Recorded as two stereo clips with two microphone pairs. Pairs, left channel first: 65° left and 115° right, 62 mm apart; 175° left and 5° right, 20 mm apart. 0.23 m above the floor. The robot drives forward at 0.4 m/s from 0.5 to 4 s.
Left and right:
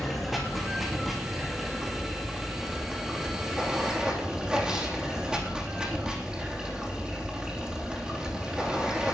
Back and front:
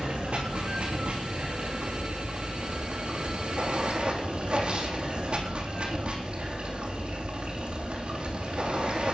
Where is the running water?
30° right, 5 m; by 9.1 s 40° right, 4 m.